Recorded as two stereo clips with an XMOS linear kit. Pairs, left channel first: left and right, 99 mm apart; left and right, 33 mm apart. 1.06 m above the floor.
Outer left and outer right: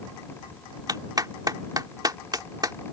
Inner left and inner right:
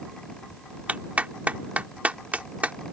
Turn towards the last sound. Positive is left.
turn(degrees=-45)  # may be behind; listen again after turning